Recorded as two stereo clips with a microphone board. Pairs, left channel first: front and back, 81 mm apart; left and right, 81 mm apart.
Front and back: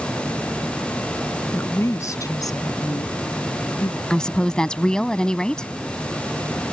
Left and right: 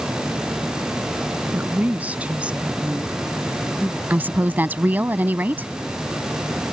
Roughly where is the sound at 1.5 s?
Ahead right.